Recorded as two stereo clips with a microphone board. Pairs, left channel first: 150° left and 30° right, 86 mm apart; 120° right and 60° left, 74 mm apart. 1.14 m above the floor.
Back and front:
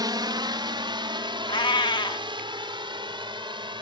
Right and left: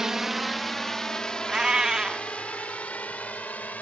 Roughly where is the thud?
No thud in this recording.